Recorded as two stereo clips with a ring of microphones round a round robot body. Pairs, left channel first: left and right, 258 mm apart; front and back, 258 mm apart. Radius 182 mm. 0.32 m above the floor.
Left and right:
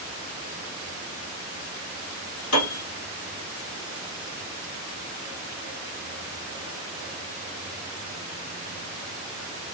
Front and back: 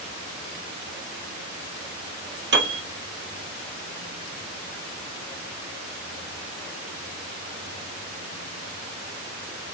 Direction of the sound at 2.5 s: 135° left.